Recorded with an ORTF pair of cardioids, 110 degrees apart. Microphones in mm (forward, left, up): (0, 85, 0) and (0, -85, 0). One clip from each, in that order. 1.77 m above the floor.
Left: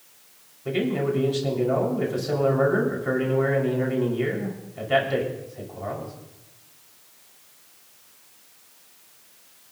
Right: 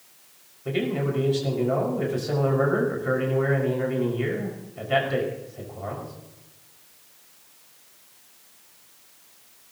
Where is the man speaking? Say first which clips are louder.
Left 2 dB; 5° left, 6 m.